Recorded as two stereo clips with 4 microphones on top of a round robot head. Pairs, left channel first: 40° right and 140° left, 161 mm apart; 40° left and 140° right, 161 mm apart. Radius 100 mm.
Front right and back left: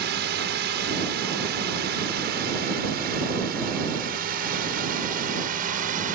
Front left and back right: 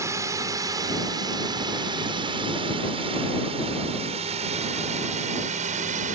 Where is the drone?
150° left; by 6.2 s straight behind.